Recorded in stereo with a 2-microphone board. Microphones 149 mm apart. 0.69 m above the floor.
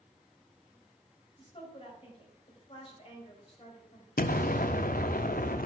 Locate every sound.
1.4 s a woman speaking: 40° left (ahead or behind), 3 m
4.2 s an explosion: 75° left (ahead or behind), 0.6 m